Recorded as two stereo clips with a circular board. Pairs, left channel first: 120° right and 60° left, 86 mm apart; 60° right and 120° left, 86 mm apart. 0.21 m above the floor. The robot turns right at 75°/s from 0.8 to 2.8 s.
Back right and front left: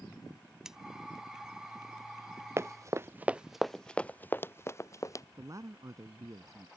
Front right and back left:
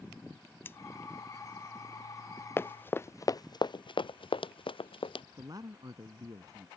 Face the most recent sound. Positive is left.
turn(degrees=95)